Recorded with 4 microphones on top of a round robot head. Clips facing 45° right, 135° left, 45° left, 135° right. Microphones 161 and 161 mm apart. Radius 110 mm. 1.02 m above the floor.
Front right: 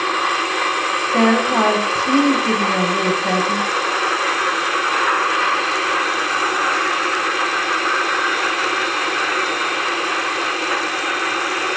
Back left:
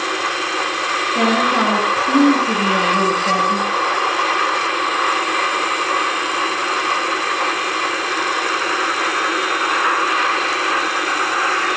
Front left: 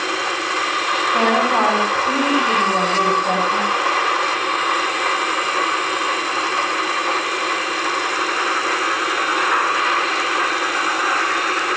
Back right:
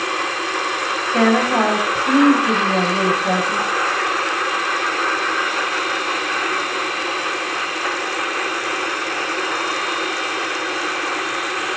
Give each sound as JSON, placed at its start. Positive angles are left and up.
{"t": 1.1, "sound": "a woman speaking", "azimuth_deg": -70, "distance_m": 9.0}